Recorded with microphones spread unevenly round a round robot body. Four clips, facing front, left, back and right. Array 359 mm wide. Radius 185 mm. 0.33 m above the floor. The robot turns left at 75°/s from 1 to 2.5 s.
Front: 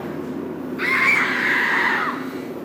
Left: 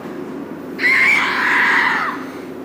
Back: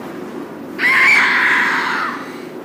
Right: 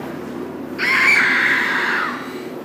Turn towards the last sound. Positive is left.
turn(degrees=60)